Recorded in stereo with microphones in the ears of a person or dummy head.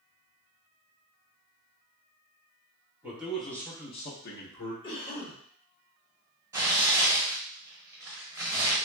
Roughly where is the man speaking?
Centre.